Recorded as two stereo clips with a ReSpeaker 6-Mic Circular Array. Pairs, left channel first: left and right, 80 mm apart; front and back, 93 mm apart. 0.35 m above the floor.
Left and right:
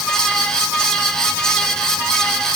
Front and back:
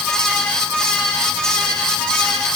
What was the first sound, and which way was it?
Only background noise.